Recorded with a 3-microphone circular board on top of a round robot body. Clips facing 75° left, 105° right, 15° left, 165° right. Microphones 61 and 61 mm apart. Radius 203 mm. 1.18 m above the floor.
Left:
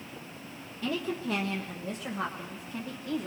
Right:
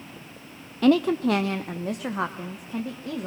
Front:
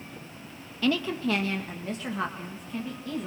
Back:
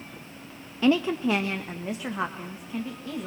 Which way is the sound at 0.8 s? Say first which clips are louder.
Right 13 dB, back 4 dB; 100° right.